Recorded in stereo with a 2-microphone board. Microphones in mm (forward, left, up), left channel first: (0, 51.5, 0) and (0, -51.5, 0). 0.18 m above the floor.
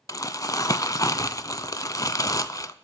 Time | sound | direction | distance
0.1 | crumpling | 35° left (ahead or behind) | 0.5 m